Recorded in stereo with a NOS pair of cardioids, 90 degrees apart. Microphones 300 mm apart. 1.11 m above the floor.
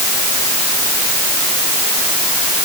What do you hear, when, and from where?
Only background noise.